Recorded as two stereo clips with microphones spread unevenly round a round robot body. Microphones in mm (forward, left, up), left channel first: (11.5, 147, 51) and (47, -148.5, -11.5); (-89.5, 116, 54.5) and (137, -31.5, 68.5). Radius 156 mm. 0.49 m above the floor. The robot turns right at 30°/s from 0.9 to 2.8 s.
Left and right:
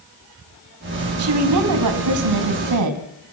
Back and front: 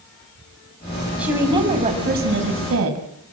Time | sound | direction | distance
1.2 | a woman speaking | 120° right | 3.5 m